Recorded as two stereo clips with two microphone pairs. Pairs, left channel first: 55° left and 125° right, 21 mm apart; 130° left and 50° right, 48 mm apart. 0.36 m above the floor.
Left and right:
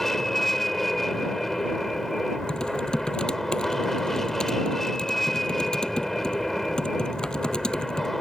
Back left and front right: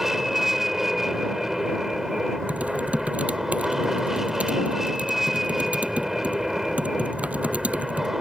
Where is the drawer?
I don't hear a drawer.